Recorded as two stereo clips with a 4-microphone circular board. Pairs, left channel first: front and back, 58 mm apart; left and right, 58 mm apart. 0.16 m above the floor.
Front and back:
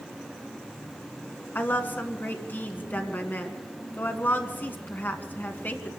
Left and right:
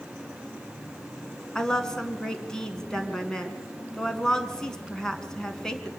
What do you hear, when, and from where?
1.6 s a woman speaking: 15° left, 1.8 m